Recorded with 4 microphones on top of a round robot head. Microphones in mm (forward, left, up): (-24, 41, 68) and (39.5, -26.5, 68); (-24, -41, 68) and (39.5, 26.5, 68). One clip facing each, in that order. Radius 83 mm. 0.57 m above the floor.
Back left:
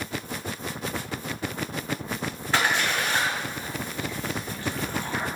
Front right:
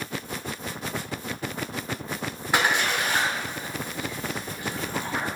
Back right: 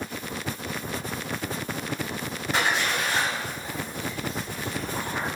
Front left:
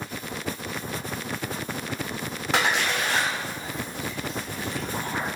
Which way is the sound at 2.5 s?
25° left.